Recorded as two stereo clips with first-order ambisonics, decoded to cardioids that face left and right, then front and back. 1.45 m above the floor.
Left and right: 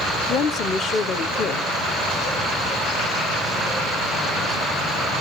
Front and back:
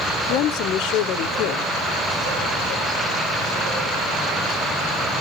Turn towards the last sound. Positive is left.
turn(degrees=35)